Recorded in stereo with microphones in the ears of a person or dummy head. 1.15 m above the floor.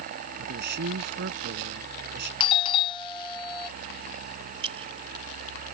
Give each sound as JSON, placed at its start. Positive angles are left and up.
{"t": 0.4, "sound": "a man speaking", "side_deg": -55}
{"t": 2.4, "sound": "a doorbell", "side_deg": 25}
{"t": 4.6, "sound": "keys jangling", "side_deg": -35}